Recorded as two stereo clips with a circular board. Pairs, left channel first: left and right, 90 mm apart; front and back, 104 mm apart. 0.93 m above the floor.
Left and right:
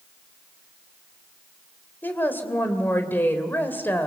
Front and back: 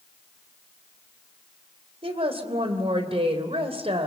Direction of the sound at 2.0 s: 160° left.